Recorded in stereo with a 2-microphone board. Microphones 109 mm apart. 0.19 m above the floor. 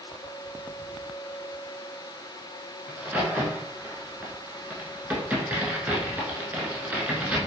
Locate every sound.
2.9 s a crack: 15° right (ahead or behind), 0.6 m